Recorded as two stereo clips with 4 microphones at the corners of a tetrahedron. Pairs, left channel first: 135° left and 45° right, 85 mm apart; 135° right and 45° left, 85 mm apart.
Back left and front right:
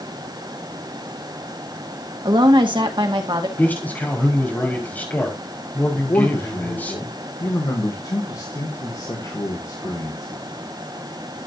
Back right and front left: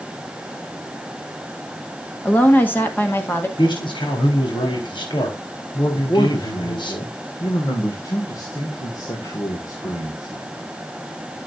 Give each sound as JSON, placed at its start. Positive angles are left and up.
{"t": 2.2, "sound": "a woman speaking", "azimuth_deg": -65, "distance_m": 1.8}
{"t": 3.6, "sound": "a man speaking", "azimuth_deg": -155, "distance_m": 4.0}
{"t": 5.9, "sound": "a man speaking", "azimuth_deg": 180, "distance_m": 2.0}